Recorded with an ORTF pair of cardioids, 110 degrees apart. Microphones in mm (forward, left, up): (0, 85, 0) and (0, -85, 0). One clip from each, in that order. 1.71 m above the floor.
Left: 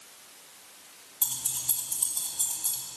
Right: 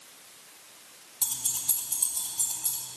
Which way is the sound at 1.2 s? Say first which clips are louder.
Right 1 dB; 10° right.